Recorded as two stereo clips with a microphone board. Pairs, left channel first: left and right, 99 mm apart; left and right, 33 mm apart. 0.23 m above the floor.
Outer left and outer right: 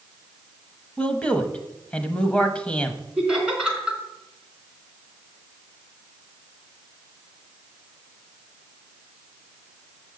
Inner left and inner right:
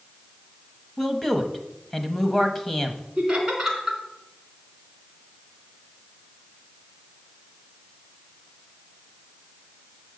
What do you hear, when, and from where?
1.0 s a man speaking: 10° left (ahead or behind), 0.9 m
3.2 s laughter: 10° right (ahead or behind), 3 m